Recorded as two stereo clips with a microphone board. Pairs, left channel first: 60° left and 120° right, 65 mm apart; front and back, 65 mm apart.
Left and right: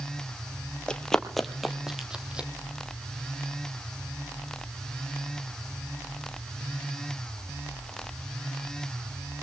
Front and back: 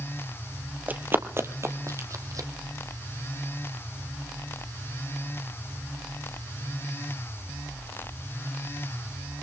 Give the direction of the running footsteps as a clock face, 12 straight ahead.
8 o'clock.